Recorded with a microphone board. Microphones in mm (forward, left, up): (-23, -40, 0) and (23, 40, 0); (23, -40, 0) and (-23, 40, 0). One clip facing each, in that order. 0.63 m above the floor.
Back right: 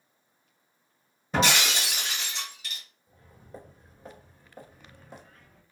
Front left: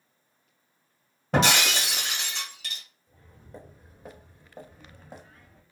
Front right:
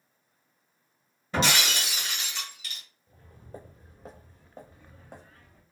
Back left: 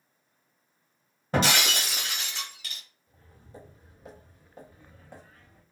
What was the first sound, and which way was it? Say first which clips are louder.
Breaking glass: front left 2 dB, back left 2 dB; 75° left.